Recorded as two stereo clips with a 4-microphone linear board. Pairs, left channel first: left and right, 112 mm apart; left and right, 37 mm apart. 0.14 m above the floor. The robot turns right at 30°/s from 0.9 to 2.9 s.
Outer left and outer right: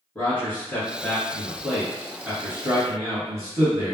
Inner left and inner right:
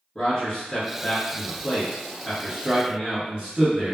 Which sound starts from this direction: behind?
A man speaking, at 0.1 s.